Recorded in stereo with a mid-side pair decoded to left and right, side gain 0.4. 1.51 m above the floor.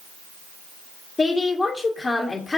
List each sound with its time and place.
1.2 s a woman speaking: 30° left, 1.4 m